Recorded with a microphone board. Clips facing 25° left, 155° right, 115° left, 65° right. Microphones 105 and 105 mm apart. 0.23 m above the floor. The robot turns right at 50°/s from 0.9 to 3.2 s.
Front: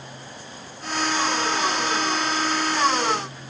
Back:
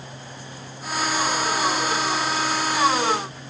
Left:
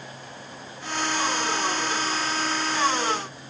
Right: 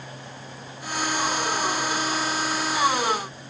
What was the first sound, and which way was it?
Only background noise.